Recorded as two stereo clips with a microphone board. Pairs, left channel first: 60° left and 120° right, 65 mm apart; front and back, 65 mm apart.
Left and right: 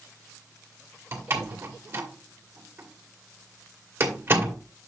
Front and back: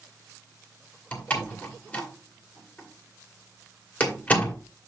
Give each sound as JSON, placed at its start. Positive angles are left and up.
{"t": 1.1, "sound": "a door slam", "azimuth_deg": -65, "distance_m": 2.0}